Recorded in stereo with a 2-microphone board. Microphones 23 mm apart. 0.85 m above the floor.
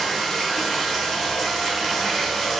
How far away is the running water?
About 1.0 m.